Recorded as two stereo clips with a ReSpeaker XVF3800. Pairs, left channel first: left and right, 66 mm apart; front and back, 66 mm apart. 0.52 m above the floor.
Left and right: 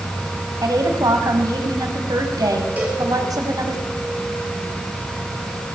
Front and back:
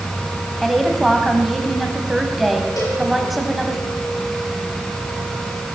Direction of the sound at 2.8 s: 25° right.